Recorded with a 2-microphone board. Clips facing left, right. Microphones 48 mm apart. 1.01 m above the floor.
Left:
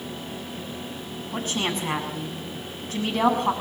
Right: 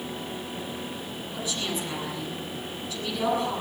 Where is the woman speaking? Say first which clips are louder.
Left 5 dB; 55° left (ahead or behind), 7 m.